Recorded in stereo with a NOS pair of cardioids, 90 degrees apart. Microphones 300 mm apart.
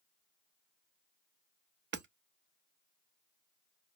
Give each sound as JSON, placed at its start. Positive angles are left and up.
{"t": 1.9, "sound": "hammering", "azimuth_deg": -40, "distance_m": 0.9}